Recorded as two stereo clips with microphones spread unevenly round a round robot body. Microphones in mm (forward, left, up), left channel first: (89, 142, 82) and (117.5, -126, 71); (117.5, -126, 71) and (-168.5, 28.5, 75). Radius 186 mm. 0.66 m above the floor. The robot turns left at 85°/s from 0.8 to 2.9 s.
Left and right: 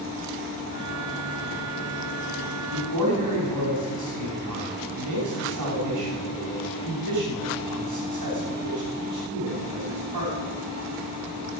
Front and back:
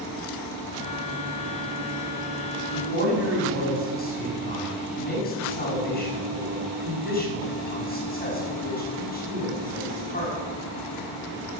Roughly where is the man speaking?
Right.